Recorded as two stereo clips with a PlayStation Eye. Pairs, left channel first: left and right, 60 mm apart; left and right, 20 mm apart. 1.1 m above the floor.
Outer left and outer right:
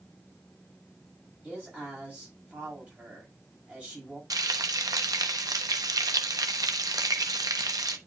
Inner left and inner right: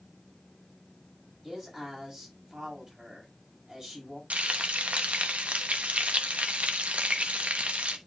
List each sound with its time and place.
1.4 s a man speaking: 20° right (ahead or behind), 7 m
4.3 s frying: 80° right, 0.9 m